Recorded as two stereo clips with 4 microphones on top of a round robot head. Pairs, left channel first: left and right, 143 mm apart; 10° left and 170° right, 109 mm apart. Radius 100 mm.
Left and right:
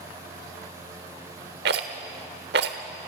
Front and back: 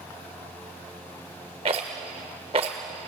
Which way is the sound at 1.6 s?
110° right.